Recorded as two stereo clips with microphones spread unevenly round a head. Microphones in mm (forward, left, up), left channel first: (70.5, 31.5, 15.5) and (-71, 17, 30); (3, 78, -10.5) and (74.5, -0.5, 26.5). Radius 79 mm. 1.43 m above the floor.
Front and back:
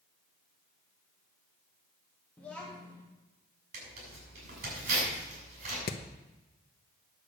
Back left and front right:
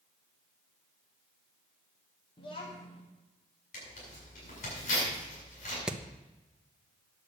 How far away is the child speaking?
About 1.5 m.